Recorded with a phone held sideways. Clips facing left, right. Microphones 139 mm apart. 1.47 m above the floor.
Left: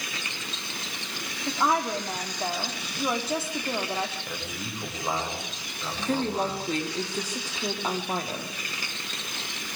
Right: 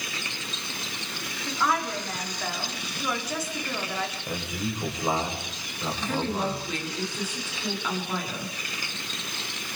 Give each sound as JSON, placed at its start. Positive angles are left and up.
{"t": 1.5, "sound": "a woman speaking", "side_deg": 25, "distance_m": 3.5}
{"t": 4.3, "sound": "a man speaking", "side_deg": -15, "distance_m": 6.5}
{"t": 6.0, "sound": "a woman speaking", "side_deg": 40, "distance_m": 4.0}